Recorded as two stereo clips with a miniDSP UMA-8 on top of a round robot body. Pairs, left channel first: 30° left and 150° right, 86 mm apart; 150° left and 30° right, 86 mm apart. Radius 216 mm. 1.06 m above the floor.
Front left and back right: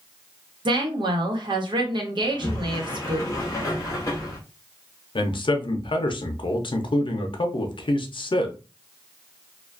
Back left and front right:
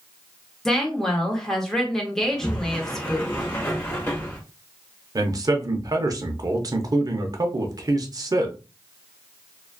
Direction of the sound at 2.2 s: 90° left.